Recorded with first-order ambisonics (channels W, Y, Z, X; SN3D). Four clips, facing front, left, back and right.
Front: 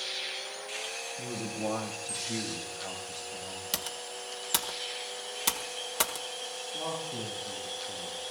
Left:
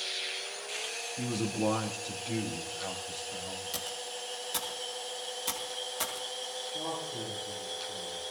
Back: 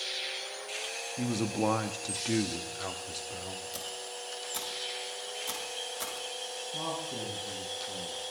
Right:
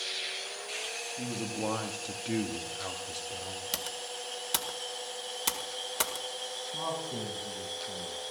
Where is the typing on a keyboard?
35° right, 1.6 m.